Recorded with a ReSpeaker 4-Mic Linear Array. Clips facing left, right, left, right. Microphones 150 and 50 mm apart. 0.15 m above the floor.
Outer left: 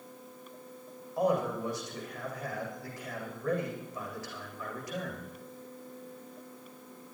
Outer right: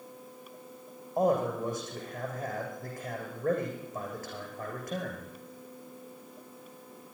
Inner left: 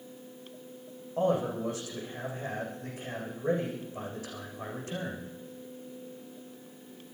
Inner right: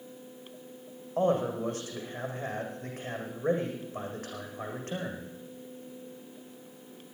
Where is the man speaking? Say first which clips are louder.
Outer right 2 dB, inner right 1 dB; 50° right (ahead or behind), 7.5 m.